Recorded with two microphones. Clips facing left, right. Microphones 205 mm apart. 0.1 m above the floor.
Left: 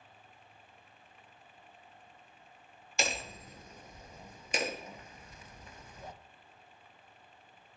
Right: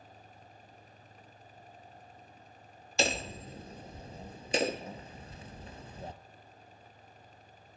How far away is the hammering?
About 0.5 m.